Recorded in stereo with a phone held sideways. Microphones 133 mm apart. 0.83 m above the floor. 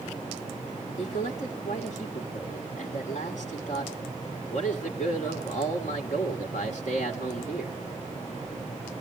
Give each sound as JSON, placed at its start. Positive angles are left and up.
{"t": 1.0, "sound": "a man speaking", "side_deg": 65, "distance_m": 2.0}